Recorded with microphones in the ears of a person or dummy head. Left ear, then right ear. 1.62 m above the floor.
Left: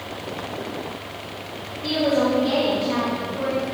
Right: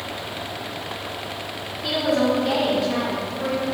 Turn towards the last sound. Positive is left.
turn(degrees=10)  # may be behind; listen again after turning